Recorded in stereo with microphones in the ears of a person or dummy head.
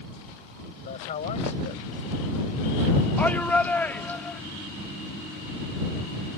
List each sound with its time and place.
0.8 s a man speaking: 40° left (ahead or behind)
3.2 s a shout: 10° left (ahead or behind)